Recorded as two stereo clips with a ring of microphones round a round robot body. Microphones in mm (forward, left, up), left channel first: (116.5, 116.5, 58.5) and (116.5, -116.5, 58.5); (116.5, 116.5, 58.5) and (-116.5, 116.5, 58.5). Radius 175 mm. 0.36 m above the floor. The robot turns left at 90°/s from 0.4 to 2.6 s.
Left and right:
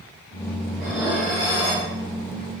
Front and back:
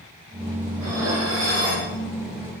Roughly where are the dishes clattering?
Behind right.